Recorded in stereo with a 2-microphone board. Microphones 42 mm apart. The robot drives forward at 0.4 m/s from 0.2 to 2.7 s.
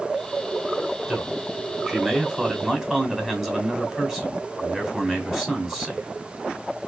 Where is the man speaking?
10° right (ahead or behind), 1.9 m; by 6.1 s 15° right (ahead or behind), 1.6 m.